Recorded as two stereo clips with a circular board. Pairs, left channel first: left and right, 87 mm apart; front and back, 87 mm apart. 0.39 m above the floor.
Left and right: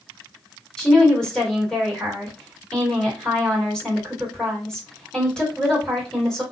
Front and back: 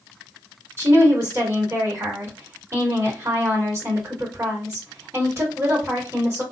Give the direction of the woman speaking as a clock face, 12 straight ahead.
7 o'clock.